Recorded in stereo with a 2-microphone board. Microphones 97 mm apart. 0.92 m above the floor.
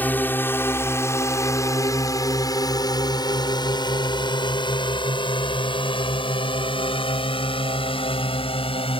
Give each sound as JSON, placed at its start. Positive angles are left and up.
{"t": 0.0, "sound": "a drone", "side_deg": 20}